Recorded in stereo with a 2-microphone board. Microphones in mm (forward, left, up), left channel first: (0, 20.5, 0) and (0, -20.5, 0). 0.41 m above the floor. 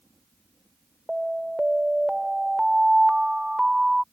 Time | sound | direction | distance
1.1 | an alarm | 15° right (ahead or behind) | ?